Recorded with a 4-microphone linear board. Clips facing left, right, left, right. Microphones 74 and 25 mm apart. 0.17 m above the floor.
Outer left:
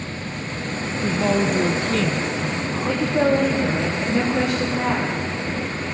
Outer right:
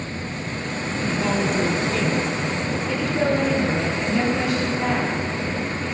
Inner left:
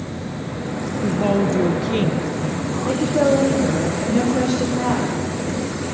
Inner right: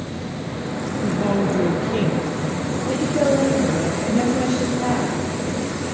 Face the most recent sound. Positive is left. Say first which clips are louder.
# outer left 4 dB, inner left 2 dB
turn(degrees=50)  # may be behind; listen again after turning